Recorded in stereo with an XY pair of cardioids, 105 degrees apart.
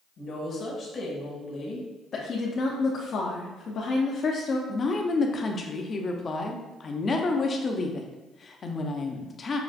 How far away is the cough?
I don't hear a cough.